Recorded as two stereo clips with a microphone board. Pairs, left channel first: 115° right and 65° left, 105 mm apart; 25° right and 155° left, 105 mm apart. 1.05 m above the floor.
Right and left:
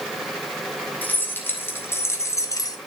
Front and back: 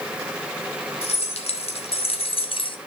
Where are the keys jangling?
40° right, 1.9 m; by 2.8 s 60° right, 0.8 m.